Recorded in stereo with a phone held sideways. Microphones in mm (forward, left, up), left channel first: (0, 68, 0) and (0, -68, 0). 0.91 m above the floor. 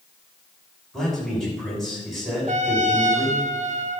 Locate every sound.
0.9 s a man speaking: centre (ahead or behind), 6.5 m
2.5 s a trumpet: 60° right (ahead or behind), 0.7 m